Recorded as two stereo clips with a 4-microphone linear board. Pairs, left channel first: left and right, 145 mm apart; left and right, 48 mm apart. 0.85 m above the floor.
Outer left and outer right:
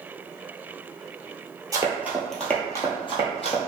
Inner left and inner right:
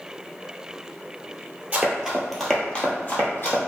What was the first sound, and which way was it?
Running footsteps, 25° right (ahead or behind).